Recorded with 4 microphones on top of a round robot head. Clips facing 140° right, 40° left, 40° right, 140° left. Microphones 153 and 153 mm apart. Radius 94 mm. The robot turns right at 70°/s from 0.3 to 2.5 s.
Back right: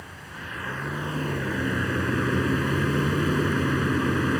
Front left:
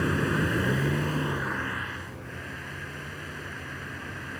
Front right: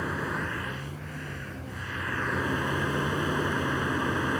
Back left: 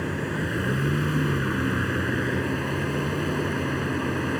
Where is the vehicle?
65° left; by 4.4 s 140° right.